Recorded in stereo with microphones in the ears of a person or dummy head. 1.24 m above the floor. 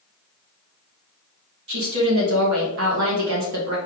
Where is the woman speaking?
65° right (ahead or behind), 1.5 m.